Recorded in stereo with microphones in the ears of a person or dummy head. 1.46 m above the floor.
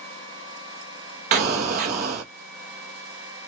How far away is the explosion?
About 1.0 m.